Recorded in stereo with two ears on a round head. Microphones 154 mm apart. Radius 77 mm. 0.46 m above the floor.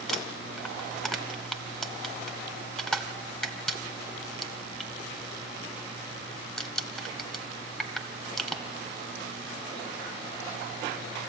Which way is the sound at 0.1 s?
5° left (ahead or behind).